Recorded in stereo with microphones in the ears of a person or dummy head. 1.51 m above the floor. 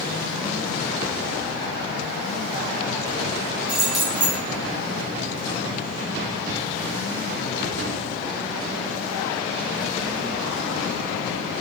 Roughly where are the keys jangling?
Centre.